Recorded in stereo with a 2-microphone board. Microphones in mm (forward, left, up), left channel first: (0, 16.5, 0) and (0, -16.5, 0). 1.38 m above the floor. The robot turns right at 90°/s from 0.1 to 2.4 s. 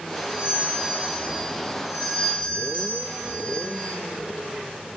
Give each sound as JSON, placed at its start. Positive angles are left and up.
{"t": 0.1, "sound": "a doorbell", "azimuth_deg": -170, "distance_m": 8.5}